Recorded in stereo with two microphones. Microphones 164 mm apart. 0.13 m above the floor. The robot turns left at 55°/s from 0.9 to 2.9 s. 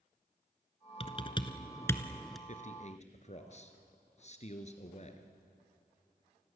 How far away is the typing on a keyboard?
About 1.2 m.